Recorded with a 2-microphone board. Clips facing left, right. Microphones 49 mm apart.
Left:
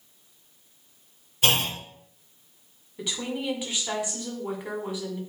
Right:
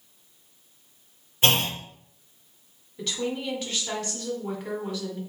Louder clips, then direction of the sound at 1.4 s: Right 1 dB; 30° right (ahead or behind).